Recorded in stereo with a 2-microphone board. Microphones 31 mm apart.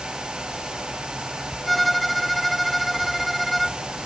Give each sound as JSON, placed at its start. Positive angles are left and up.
{"t": 1.7, "sound": "a violin", "side_deg": 0}